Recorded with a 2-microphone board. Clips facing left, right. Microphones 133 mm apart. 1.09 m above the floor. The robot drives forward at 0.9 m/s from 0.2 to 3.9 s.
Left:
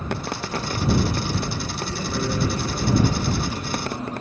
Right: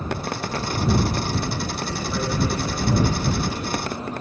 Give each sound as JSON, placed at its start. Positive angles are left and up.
{"t": 1.8, "sound": "a man speaking", "side_deg": 90, "distance_m": 9.0}